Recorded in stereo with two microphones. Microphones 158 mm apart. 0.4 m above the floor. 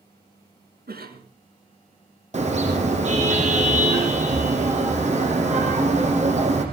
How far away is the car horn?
About 6.5 m.